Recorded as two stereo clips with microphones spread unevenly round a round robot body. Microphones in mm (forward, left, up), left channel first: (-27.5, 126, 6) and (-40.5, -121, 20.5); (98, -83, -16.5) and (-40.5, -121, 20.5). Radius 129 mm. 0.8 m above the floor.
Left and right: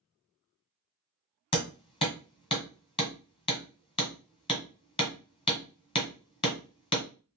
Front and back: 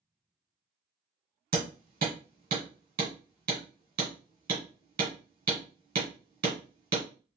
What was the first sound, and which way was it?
Hammering, 155° left.